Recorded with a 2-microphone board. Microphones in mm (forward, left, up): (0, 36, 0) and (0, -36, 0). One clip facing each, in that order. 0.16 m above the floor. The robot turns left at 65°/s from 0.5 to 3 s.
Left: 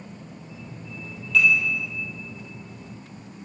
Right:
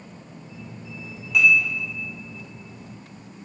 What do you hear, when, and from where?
1.3 s dishes clattering: 15° right (ahead or behind), 2.5 m; by 1.6 s centre (ahead or behind), 2.5 m